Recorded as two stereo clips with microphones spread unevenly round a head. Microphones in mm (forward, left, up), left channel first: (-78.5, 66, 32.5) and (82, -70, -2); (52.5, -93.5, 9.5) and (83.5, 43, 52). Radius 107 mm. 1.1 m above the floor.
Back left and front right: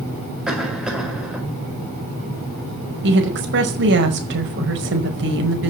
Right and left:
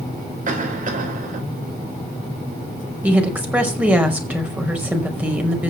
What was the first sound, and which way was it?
A cough, 45° left.